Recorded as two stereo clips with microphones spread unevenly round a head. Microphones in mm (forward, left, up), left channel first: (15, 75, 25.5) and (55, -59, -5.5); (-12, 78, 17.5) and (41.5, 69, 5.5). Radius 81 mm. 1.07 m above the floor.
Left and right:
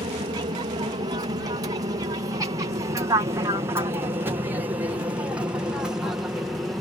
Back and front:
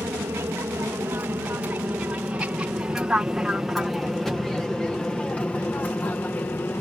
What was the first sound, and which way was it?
An aircraft, 40° right.